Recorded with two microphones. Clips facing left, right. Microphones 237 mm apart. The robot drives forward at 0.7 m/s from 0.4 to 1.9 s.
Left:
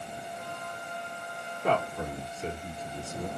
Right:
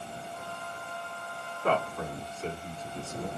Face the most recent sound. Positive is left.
turn(degrees=15)  # may be behind; listen again after turning